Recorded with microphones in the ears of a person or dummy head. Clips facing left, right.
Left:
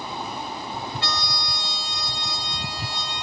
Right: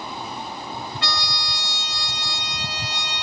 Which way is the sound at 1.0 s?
50° right (ahead or behind).